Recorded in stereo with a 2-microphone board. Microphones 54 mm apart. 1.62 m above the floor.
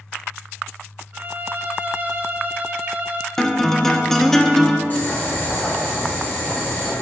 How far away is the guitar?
About 0.6 m.